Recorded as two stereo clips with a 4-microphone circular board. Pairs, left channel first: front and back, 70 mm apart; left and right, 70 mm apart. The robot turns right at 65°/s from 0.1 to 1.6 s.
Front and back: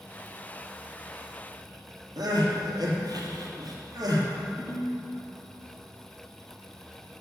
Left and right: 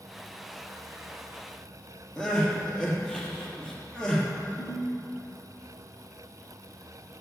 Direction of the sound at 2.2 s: 165° left.